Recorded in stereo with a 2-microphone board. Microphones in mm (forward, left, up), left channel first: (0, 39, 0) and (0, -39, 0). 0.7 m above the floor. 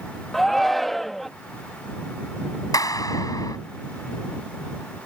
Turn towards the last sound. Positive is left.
turn(degrees=50)  # may be behind; listen again after turning